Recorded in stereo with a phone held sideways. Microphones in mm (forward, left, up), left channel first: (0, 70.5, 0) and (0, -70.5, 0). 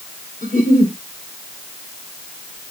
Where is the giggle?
65° left (ahead or behind), 5.5 m.